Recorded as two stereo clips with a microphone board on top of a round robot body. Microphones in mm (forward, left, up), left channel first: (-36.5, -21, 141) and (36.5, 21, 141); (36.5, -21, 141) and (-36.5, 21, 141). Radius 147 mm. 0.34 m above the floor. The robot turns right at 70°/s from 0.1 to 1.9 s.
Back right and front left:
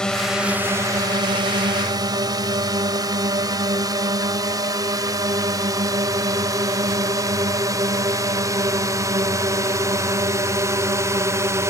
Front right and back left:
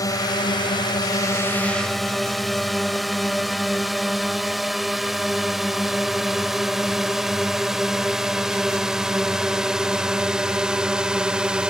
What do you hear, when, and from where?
0.0 s a drone: 70° right; by 11.7 s 75° left